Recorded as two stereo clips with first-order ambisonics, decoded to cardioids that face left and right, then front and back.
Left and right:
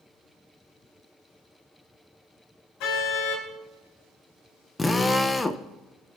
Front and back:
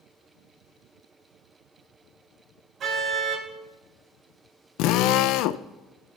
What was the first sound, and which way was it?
A car horn, 120° left.